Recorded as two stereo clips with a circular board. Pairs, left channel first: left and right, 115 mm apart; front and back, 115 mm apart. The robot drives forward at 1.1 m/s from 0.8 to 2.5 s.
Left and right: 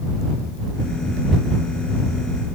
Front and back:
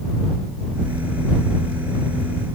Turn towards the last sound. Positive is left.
No sound to turn to.